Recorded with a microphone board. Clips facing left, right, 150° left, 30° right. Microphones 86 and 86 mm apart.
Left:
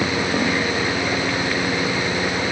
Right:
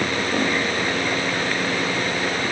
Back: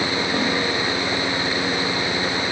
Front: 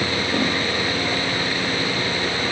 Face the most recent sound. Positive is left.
No sound to turn to.